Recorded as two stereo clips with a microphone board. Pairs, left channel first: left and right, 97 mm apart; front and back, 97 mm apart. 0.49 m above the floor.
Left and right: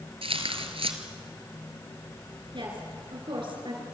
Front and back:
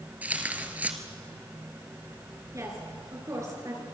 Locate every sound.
0.2 s tearing paper: 105° right, 2 m
2.5 s a woman speaking: 125° right, 7 m